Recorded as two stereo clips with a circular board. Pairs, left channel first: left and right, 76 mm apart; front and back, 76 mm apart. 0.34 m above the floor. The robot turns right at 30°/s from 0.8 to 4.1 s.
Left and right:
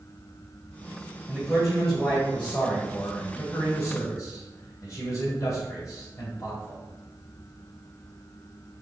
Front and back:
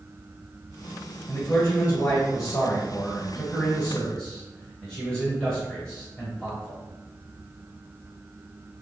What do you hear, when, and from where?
1.3 s a man speaking: 5° right, 1.2 m; by 6.8 s 80° left, 1.2 m